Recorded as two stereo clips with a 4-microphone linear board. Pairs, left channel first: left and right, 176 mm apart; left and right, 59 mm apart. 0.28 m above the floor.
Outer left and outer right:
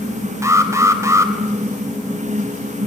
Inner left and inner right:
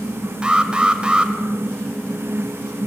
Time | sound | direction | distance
0.4 | an alarm | 20° right (ahead or behind) | 2.0 m